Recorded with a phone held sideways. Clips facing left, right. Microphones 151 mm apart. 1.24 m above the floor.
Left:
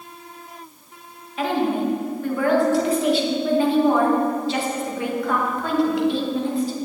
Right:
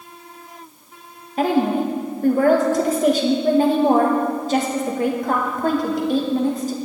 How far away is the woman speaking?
About 1.3 m.